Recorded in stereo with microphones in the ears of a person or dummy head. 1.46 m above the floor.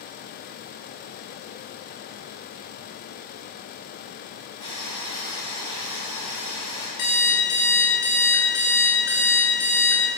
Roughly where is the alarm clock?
Left.